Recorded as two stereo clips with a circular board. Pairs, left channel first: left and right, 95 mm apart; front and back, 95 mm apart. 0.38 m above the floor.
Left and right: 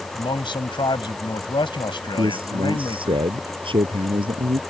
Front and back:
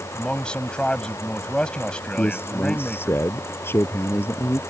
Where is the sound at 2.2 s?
65° right.